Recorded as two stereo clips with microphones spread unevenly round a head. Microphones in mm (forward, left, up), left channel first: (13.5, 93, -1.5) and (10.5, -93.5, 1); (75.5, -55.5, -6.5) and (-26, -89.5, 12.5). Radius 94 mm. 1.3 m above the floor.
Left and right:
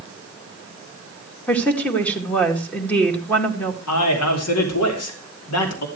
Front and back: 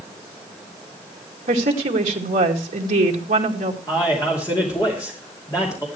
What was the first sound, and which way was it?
A woman speaking, 170° left.